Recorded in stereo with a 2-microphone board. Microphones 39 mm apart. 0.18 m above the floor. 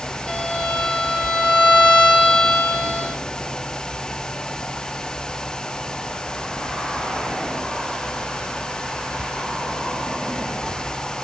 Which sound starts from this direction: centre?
A violin, at 0.3 s.